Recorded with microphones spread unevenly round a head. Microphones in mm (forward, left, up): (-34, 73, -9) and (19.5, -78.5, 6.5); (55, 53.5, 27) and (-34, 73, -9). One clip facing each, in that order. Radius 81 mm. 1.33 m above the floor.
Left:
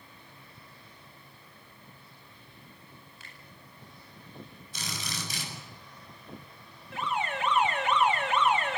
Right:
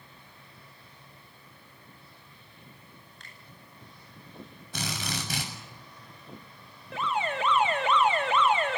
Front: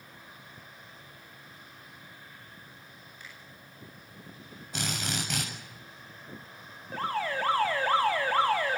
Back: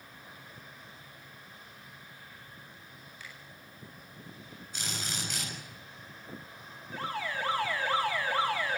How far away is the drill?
About 7 m.